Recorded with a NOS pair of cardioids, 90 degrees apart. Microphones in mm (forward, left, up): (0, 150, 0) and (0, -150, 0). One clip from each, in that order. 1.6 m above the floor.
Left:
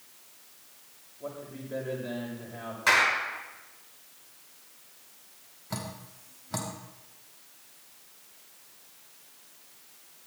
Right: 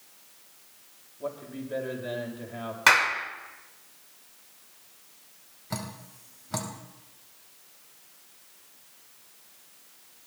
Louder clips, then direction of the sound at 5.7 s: Right 1 dB; 20° right.